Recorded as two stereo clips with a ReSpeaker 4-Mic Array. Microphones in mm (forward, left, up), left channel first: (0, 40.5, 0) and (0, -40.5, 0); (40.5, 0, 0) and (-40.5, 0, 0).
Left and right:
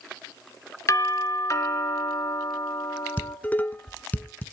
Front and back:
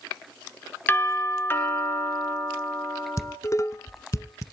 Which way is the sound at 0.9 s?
55° left.